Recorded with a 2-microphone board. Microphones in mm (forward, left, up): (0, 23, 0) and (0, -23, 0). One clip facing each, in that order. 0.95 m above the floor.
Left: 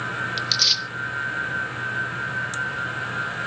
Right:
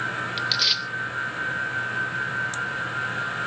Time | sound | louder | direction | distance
0.4 | tearing paper | even | 10° right (ahead or behind) | 0.9 m